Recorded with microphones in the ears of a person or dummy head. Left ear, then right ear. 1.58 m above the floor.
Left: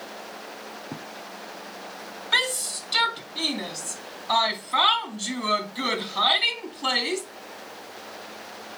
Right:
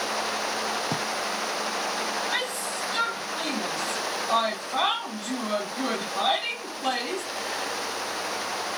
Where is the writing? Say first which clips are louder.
Right 10 dB; 80° right, 0.8 m.